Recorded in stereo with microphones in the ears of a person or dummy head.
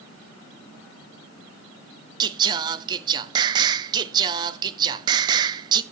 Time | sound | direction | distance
2.2 | singing | 20° right (ahead or behind) | 0.8 m